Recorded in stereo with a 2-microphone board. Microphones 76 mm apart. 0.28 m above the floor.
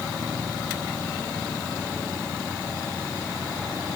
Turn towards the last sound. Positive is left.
No sound to turn to.